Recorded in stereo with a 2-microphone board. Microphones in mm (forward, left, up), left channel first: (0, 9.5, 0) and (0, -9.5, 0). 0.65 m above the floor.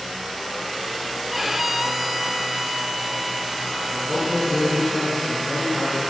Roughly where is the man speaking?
Centre.